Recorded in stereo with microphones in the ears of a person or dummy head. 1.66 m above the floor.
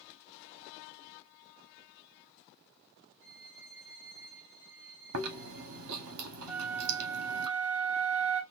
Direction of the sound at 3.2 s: 60° right (ahead or behind).